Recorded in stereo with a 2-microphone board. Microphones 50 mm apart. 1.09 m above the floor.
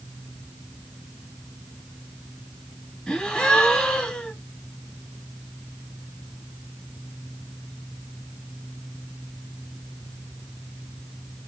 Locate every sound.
3.1 s a gasp: 20° left (ahead or behind), 1.4 m